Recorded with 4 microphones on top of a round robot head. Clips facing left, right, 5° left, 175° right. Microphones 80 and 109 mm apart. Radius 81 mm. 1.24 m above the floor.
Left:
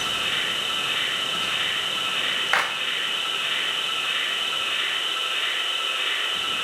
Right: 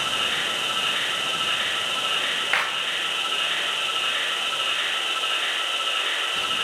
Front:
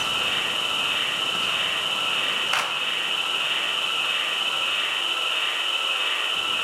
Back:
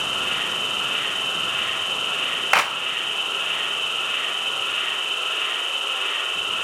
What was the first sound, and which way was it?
An insect, 85° right.